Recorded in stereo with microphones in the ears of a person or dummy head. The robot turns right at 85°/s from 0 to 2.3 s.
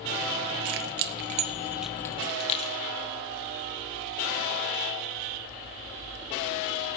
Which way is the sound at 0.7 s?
60° right (ahead or behind).